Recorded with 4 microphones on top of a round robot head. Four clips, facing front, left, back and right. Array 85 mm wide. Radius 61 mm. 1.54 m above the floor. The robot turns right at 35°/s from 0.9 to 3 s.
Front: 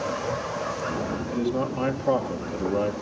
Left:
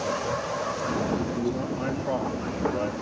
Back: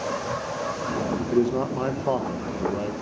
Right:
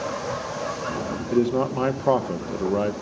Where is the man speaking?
135° right, 1.3 m; by 2.9 s 80° right, 1.3 m.